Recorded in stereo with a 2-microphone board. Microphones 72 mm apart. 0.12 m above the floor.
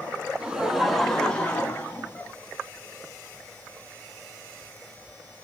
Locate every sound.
0.4 s laughter: 15° right (ahead or behind), 1.1 m; by 2.3 s 40° left (ahead or behind), 1.4 m